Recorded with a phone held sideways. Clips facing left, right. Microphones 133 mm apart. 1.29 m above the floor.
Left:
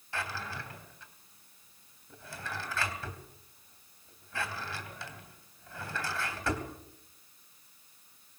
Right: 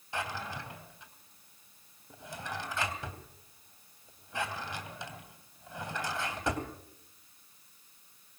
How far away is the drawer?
About 3 m.